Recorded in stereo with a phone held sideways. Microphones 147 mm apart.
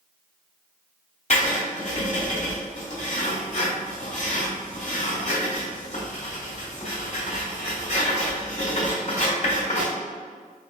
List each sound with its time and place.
1.3 s writing: 50° left (ahead or behind), 1.8 m